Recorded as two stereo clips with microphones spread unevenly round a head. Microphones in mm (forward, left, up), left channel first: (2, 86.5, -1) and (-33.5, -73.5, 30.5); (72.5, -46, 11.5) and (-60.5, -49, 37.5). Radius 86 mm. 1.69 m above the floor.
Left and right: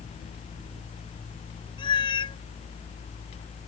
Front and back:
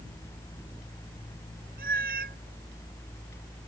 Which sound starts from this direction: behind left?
A cat meowing, at 1.8 s.